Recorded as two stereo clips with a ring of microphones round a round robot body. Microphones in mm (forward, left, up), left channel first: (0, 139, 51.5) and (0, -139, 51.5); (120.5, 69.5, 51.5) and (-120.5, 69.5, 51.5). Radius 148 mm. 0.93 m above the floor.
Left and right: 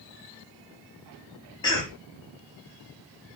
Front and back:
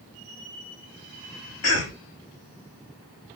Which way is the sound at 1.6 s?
15° left.